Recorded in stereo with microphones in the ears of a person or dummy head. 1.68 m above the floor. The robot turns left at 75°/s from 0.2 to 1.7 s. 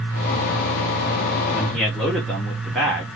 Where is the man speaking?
5° right (ahead or behind), 0.7 m; by 3.0 s centre (ahead or behind), 0.7 m.